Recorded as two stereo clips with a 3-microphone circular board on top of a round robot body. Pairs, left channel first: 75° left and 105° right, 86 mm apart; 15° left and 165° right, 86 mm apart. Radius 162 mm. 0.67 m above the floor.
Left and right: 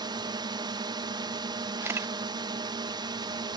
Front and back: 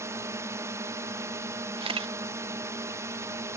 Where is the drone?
115° right.